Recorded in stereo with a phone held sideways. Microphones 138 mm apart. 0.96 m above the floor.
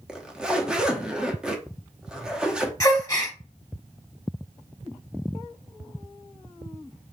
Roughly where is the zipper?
Centre.